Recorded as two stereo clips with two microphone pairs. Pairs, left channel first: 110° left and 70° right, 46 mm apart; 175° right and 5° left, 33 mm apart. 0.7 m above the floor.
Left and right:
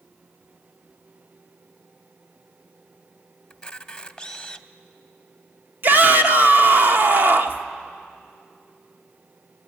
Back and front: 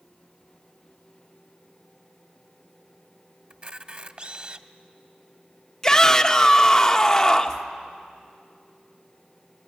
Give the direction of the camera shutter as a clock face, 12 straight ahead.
10 o'clock.